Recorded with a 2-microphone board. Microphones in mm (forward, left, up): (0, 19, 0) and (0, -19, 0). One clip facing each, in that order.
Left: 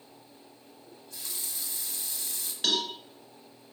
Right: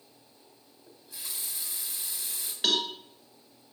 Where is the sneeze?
No sneeze in this recording.